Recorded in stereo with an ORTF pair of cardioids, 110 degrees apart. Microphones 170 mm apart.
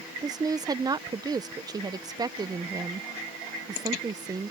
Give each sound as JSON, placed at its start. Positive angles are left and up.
{"t": 0.2, "sound": "a woman speaking", "azimuth_deg": -25}